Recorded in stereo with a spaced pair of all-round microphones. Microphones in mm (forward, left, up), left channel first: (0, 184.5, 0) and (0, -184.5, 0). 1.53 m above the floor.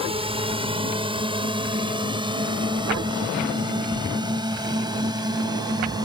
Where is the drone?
15° right (ahead or behind); by 6.1 s 10° right (ahead or behind).